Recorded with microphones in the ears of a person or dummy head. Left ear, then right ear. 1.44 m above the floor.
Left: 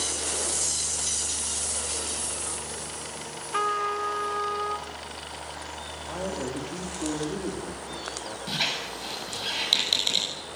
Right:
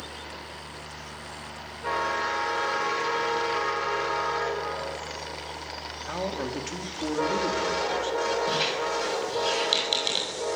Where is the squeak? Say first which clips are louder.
Right 3 dB; 10° right (ahead or behind), 7 m.